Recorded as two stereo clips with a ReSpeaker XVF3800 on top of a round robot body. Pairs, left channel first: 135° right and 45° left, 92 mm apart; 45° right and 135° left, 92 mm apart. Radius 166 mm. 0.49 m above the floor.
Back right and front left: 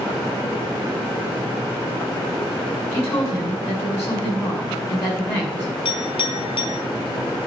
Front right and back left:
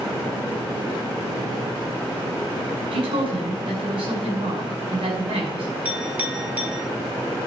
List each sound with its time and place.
2.9 s a woman speaking: 160° left, 5.5 m
5.8 s a clink: 150° right, 3 m